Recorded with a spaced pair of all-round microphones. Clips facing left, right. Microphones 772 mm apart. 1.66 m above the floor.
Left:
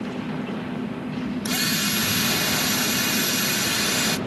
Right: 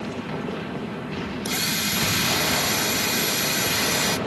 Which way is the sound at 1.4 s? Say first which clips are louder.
Left 3 dB; 45° left (ahead or behind).